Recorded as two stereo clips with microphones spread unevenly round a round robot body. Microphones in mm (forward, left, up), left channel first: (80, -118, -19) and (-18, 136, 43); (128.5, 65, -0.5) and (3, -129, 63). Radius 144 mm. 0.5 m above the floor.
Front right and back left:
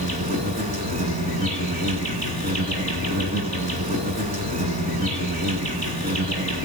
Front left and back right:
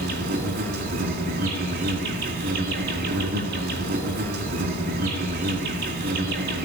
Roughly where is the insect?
Behind.